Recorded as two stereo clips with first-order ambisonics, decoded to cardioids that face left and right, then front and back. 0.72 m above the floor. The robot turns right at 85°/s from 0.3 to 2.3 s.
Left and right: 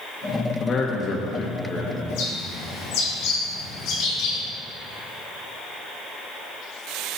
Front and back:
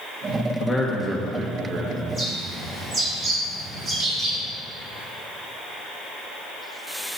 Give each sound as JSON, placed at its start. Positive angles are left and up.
{"t": 0.6, "sound": "a man speaking", "azimuth_deg": 50, "distance_m": 0.6}
{"t": 2.1, "sound": "a bird", "azimuth_deg": 80, "distance_m": 2.5}